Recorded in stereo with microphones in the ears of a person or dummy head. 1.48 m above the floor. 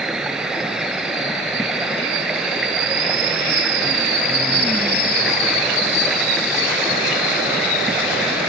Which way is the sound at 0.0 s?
5° right (ahead or behind).